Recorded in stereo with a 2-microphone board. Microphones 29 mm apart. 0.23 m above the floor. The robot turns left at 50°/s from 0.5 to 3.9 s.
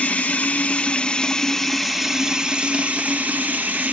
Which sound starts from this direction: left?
Running water, at 0.0 s.